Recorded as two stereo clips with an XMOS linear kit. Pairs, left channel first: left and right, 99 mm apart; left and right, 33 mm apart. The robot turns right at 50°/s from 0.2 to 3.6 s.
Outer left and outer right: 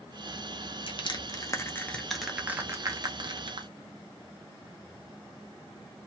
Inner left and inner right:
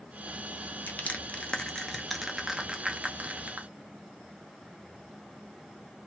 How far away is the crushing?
About 0.7 m.